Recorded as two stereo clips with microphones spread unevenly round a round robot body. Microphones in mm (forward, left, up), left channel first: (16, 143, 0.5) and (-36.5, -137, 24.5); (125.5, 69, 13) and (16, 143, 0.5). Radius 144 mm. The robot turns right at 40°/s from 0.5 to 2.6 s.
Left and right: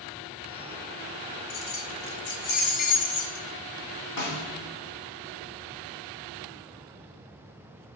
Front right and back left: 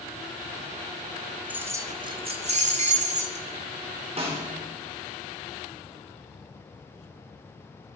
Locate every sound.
1.5 s keys jangling: 65° left, 1.3 m; by 3.5 s 110° left, 1.3 m
4.2 s a snare drum: 105° left, 3.5 m